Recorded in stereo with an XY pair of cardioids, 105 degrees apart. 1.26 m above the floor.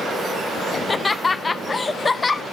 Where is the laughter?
25° left, 0.6 m.